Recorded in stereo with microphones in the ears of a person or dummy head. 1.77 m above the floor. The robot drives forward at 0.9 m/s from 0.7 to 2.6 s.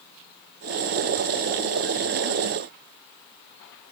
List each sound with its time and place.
Only background noise.